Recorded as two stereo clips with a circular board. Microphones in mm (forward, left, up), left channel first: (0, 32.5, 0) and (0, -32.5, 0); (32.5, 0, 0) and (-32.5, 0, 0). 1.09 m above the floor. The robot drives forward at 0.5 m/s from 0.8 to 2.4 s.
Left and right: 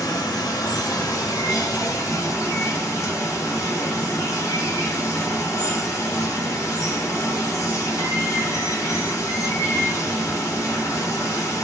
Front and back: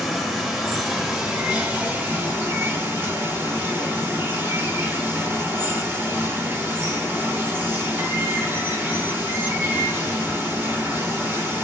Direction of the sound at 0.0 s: 90° left.